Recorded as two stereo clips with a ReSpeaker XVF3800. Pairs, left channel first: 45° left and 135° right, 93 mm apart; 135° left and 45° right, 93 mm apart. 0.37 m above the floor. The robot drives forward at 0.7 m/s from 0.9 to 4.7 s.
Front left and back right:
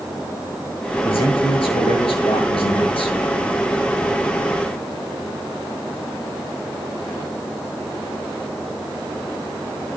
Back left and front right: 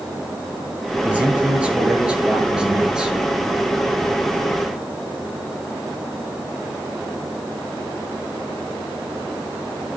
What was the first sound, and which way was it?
A man speaking, 30° left.